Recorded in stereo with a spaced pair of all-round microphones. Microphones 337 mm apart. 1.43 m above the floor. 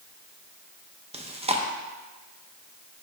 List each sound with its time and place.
1.1 s chewing: 20° right (ahead or behind), 0.6 m